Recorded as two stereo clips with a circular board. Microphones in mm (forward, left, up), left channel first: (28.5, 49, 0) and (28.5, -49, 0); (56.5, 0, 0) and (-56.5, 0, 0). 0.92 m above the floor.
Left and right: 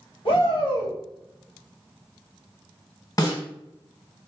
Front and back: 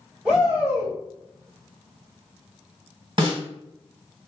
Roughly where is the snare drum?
Behind left.